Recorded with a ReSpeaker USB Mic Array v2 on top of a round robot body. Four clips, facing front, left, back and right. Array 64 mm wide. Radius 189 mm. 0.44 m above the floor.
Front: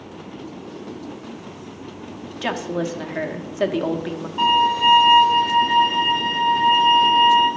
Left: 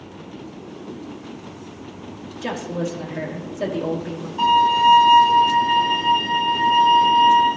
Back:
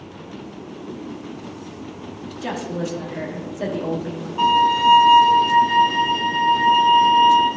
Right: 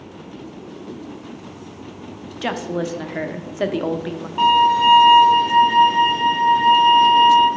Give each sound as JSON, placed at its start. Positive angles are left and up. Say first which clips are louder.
{"t": 2.4, "sound": "a woman speaking", "louder": "right 2 dB, front 2 dB", "azimuth_deg": -50, "distance_m": 1.1}
{"t": 4.4, "sound": "a violin", "louder": "right 1 dB, back 1 dB", "azimuth_deg": -80, "distance_m": 3.5}